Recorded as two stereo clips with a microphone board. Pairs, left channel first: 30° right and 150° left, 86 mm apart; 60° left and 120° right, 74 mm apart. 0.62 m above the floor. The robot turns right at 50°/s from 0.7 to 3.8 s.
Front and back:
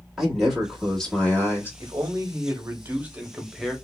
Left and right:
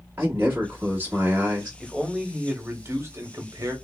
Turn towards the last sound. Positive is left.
turn(degrees=-110)